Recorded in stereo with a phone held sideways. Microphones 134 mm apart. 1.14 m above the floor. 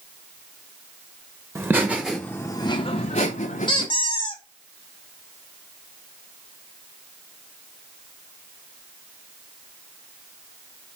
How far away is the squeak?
About 1.3 m.